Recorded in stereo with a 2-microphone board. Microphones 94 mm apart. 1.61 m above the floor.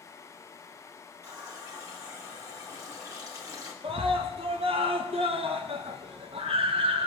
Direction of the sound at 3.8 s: 75° right (ahead or behind).